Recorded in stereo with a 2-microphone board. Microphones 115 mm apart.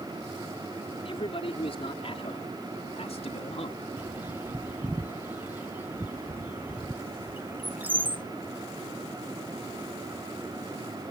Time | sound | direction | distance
1.1 | a man speaking | 55° left (ahead or behind) | ?
4.0 | a bird | 15° right (ahead or behind) | ?